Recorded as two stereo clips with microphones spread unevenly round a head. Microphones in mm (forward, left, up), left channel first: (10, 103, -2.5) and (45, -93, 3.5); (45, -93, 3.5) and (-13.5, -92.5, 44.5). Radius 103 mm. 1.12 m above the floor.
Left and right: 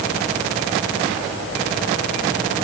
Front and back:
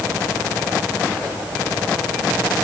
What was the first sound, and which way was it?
Only background noise.